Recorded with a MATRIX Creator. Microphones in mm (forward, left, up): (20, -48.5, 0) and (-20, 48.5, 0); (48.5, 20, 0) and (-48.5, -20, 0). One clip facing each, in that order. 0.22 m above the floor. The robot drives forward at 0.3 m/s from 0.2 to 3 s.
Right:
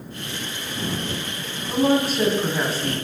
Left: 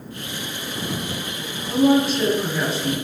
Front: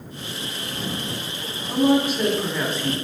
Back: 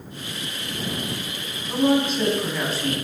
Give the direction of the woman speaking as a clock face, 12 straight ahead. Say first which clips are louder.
Left 3 dB, front 1 dB; 2 o'clock.